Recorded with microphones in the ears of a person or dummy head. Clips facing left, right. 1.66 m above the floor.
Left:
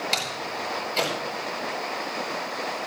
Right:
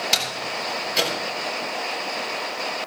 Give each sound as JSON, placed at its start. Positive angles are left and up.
{"t": 0.1, "sound": "a door slam", "side_deg": -10, "distance_m": 8.5}